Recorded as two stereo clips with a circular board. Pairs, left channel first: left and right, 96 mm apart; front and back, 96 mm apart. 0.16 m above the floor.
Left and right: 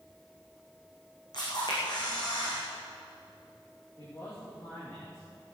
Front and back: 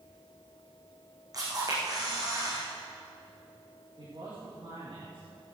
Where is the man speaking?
150° left, 7 m.